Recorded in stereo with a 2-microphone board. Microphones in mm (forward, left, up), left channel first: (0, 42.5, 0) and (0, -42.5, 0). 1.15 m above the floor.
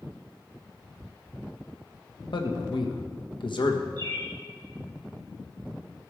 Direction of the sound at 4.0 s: 55° right (ahead or behind).